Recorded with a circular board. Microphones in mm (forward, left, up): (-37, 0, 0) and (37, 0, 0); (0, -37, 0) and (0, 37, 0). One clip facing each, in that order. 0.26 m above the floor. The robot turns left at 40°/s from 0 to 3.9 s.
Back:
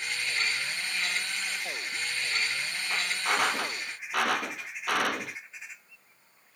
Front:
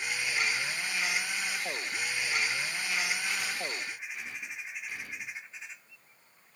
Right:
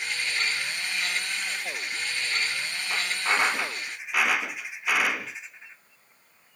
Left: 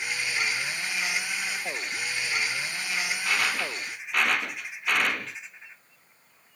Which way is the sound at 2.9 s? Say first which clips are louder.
Back 6 dB, right 3 dB; 135° right.